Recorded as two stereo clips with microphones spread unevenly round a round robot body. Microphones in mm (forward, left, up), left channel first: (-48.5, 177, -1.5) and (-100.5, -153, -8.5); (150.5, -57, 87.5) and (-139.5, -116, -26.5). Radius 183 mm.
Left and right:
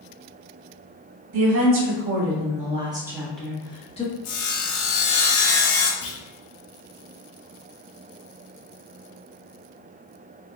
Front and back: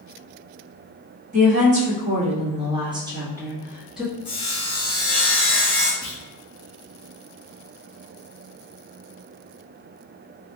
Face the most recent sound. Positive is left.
turn(degrees=75)